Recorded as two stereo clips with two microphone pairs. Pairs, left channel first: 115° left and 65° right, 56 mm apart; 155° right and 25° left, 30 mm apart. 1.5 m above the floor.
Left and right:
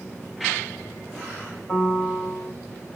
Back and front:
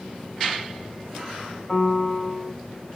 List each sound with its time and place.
1.7 s a piano: 165° left, 1.8 m